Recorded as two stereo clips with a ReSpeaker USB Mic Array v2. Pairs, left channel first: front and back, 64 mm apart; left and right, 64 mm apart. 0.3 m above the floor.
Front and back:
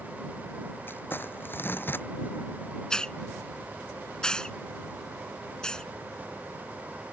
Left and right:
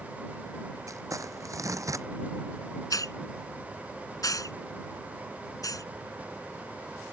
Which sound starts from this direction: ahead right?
Crumpling, at 0.9 s.